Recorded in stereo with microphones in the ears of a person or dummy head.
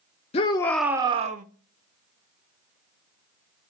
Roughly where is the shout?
Left.